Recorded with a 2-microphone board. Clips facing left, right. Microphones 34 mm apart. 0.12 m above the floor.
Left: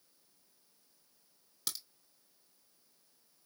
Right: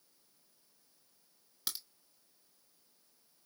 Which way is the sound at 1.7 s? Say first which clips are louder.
Even; 10° right (ahead or behind).